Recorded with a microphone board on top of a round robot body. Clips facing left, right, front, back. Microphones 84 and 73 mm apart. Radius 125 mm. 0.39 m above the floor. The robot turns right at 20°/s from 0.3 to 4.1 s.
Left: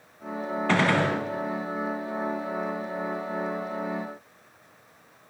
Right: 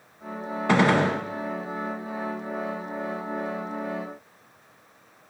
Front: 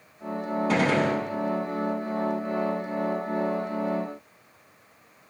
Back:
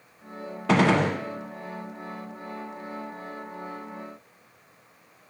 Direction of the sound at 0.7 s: 165° right.